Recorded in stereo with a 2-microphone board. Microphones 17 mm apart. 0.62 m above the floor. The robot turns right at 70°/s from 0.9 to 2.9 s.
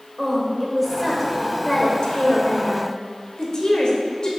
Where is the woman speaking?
20° right, 2 m; by 4.3 s 120° left, 2 m.